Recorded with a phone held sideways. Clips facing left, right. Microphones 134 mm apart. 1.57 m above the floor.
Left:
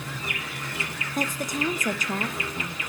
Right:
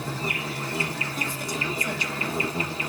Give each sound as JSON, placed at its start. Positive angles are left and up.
{"t": 0.0, "sound": "an insect", "side_deg": -35, "distance_m": 0.8}
{"t": 1.1, "sound": "a woman speaking", "side_deg": 45, "distance_m": 0.6}